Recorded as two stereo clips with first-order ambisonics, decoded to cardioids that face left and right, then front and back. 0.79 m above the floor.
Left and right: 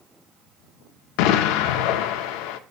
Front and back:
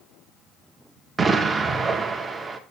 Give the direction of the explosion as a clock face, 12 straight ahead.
9 o'clock.